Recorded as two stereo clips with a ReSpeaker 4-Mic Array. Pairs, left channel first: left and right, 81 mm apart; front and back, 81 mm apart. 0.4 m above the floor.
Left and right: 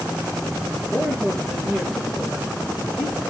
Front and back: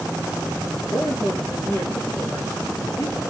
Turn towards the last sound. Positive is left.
turn(degrees=-5)